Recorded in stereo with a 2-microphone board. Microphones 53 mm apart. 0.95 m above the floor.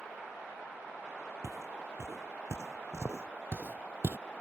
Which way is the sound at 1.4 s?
60° right (ahead or behind).